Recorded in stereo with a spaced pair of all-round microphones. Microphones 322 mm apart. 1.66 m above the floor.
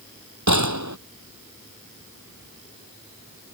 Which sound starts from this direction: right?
A gunshot, at 0.5 s.